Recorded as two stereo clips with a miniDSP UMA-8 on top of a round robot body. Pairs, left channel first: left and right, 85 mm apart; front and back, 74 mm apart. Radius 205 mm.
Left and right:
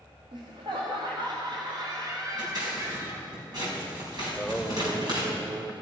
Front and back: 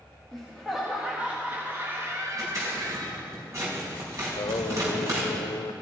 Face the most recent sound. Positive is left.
turn(degrees=-10)